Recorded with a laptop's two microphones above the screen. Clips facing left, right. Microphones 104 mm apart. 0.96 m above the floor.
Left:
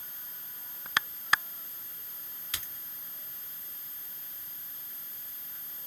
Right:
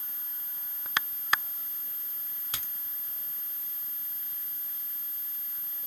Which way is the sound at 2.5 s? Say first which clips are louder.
Right 1 dB; 40° right (ahead or behind).